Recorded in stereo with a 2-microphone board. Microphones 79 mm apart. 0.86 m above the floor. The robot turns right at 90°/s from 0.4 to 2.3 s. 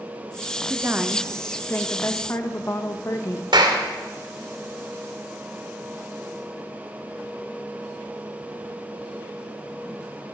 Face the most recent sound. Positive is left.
turn(degrees=-70)  # may be behind; listen again after turning